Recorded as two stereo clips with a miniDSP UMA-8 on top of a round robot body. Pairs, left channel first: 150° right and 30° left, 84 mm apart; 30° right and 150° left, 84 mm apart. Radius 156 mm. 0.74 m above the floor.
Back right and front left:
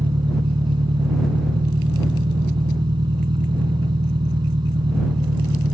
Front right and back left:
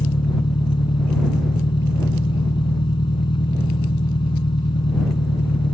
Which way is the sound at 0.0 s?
Straight ahead.